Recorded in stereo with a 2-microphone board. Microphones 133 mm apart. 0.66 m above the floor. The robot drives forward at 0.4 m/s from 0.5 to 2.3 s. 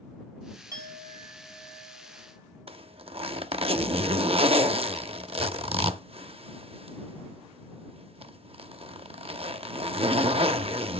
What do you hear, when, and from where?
0.7 s a clink: 25° right (ahead or behind), 2.5 m; by 3.5 s 20° right (ahead or behind), 3 m
2.7 s a zipper: 50° right (ahead or behind), 0.6 m